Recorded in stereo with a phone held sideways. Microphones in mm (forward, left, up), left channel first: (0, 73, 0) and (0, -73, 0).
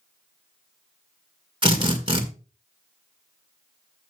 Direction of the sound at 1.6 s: 35° right (ahead or behind).